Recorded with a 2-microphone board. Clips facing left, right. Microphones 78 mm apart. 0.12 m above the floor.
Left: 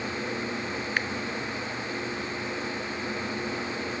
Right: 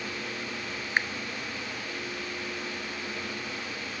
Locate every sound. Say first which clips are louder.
1.0 s a finger snap: right 3 dB; 25° right (ahead or behind), 0.9 m